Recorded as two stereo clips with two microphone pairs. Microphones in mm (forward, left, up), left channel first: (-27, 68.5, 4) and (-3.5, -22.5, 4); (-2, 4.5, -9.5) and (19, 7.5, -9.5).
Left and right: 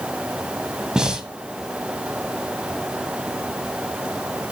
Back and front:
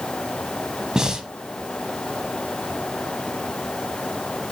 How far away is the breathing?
About 1.4 m.